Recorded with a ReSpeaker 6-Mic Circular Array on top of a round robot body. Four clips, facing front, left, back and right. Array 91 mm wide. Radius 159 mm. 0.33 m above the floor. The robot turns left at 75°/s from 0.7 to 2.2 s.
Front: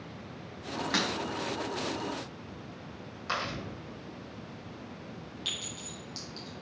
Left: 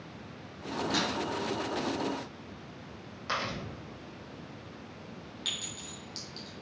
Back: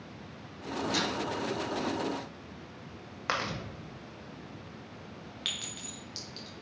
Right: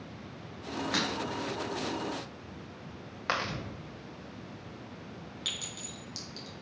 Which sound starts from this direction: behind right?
Chewing, at 3.3 s.